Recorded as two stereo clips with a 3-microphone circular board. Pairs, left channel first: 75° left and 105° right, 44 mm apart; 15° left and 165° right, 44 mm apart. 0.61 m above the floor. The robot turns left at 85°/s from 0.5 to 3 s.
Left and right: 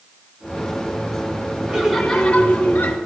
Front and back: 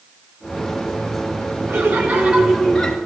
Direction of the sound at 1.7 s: 170° right.